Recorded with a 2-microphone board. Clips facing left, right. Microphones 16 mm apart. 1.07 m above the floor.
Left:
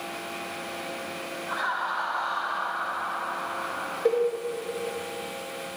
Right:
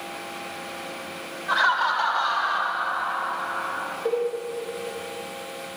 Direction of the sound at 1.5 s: 70° right (ahead or behind).